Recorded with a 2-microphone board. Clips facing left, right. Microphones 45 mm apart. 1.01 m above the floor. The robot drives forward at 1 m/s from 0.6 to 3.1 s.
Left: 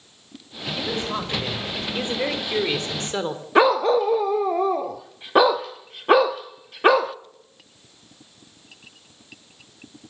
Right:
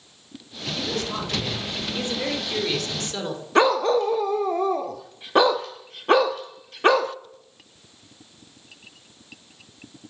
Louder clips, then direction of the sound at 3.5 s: Left 2 dB; 10° left (ahead or behind).